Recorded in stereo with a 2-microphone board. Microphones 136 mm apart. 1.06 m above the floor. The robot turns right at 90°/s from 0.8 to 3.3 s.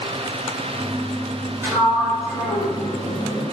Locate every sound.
1.6 s a sliding door: 20° right, 4 m; by 3.4 s 130° left, 4 m